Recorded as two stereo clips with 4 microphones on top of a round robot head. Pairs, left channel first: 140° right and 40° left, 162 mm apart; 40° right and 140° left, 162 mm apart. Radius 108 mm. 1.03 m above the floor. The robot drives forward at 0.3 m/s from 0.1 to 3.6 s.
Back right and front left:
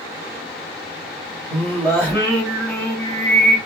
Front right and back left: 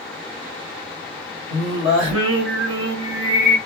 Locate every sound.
1.5 s singing: 130° left, 1.4 m; by 3.6 s 145° left, 1.9 m